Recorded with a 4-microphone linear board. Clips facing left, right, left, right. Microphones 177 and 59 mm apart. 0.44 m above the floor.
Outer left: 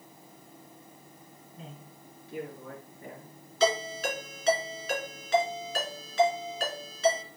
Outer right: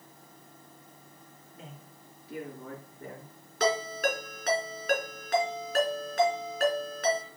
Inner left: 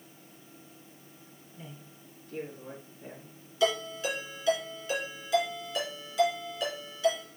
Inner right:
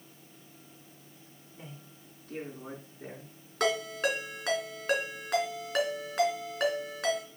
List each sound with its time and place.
1.6 s a man speaking: 75° right (ahead or behind), 3.5 m; by 3.4 s 80° right, 4.5 m
3.6 s a ringtone: 65° right (ahead or behind), 3 m